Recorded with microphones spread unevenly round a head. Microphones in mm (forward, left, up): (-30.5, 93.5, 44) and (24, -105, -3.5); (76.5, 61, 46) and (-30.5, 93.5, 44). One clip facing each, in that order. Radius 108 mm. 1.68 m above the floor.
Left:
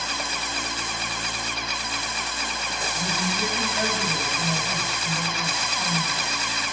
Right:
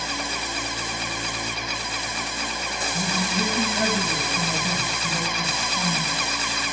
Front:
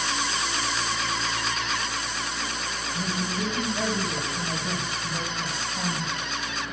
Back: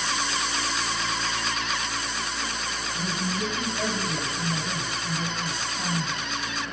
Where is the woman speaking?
95° right, 2.5 m; by 6.3 s 60° right, 3 m.